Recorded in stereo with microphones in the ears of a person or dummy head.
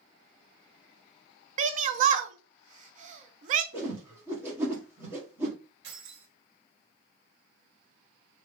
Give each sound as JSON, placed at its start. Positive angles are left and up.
{"t": 1.6, "sound": "a shout", "side_deg": -45, "distance_m": 0.5}
{"t": 3.7, "sound": "a whoosh", "side_deg": -15, "distance_m": 1.4}
{"t": 5.8, "sound": "keys jangling", "side_deg": -75, "distance_m": 2.0}